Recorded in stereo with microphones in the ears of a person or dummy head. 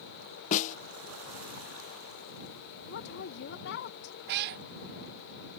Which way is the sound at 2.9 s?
60° left (ahead or behind).